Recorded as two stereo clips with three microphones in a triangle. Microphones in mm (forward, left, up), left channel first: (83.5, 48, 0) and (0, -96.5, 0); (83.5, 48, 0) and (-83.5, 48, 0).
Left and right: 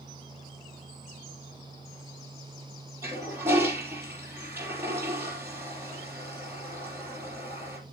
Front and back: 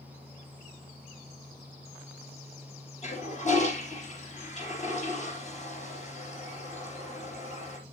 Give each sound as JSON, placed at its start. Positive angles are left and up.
{"t": 3.0, "sound": "a toilet flushing", "azimuth_deg": -40, "distance_m": 5.0}